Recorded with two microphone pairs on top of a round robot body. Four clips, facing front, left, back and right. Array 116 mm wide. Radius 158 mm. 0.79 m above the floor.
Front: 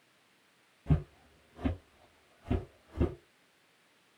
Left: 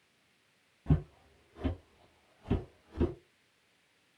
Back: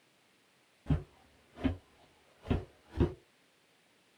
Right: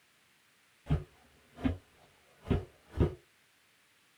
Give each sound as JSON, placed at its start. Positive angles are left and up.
{"t": 0.9, "sound": "footsteps", "azimuth_deg": 85, "distance_m": 0.9}